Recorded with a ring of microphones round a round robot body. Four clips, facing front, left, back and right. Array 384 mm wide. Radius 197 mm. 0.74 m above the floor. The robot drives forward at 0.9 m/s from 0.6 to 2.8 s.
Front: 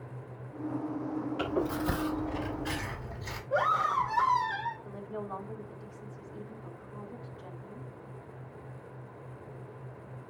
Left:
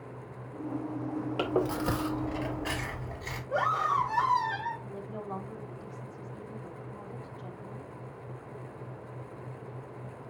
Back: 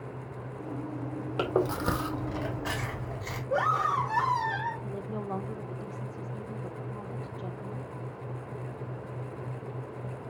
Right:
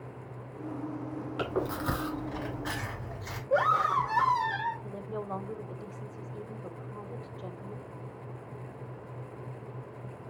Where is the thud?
I don't hear a thud.